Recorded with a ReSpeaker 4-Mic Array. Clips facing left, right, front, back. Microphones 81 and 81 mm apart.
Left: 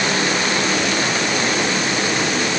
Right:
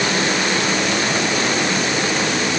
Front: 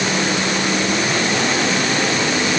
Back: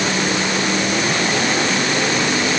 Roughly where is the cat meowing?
No cat meowing in this recording.